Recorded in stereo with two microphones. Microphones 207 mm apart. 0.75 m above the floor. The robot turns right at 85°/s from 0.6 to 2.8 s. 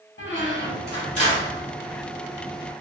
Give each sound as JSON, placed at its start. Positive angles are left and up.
{"t": 0.2, "sound": "a squeak", "azimuth_deg": 90, "distance_m": 1.0}